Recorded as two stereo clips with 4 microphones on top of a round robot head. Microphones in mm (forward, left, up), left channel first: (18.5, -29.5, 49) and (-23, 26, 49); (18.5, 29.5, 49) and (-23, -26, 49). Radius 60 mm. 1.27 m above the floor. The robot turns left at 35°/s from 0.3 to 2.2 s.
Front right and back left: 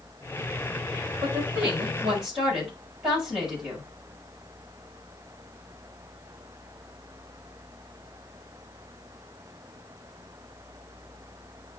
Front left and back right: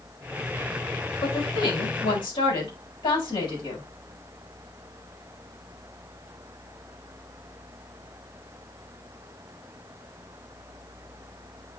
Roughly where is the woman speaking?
Left.